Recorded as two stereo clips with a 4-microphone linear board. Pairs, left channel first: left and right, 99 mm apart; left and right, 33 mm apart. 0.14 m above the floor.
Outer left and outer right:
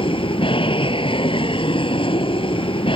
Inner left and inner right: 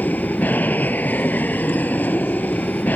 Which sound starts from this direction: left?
An aircraft, at 0.0 s.